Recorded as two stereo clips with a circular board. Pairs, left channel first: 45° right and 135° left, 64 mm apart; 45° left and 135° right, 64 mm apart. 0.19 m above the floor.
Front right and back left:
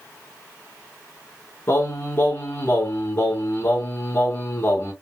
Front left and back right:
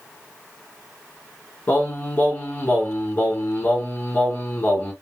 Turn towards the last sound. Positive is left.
turn(degrees=-15)